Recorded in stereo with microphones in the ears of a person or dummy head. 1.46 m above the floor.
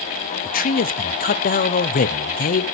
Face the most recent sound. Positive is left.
turn(degrees=45)  # may be behind; listen again after turning